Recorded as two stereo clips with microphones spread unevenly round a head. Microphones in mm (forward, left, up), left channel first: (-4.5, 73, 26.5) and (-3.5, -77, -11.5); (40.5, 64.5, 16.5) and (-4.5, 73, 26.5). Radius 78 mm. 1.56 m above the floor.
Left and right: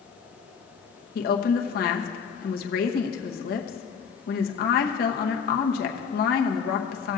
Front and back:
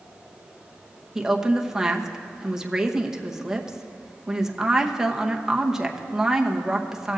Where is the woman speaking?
95° left, 0.9 m.